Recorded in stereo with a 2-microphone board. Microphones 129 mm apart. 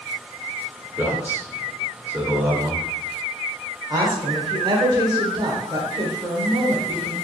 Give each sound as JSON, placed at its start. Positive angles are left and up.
{"t": 1.0, "sound": "a man speaking", "side_deg": -15, "distance_m": 0.9}
{"t": 3.9, "sound": "a woman speaking", "side_deg": -35, "distance_m": 1.0}